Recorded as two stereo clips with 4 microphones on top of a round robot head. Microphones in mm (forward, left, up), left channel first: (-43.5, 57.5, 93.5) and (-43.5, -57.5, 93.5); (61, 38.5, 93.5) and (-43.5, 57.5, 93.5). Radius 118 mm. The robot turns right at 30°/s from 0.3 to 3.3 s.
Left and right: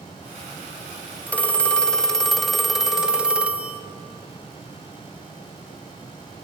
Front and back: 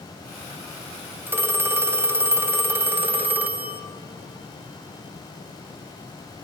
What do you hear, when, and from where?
1.3 s a phone ringing: 140° left, 0.7 m; by 3.8 s 155° right, 0.7 m